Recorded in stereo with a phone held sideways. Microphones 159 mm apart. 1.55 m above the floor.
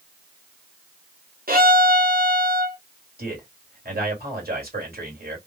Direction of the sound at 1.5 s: 70° right (ahead or behind).